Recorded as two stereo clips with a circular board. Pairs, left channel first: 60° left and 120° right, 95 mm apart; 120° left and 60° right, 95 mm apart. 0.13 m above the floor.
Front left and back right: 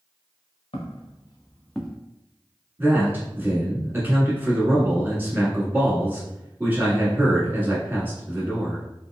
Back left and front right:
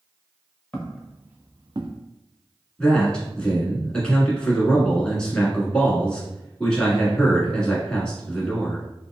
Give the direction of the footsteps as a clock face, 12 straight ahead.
11 o'clock.